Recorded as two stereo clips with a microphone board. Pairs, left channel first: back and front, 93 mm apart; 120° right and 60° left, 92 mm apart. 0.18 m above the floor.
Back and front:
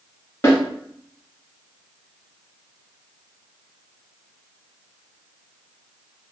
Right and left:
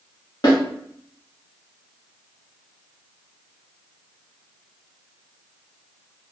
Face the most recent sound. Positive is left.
turn(degrees=-135)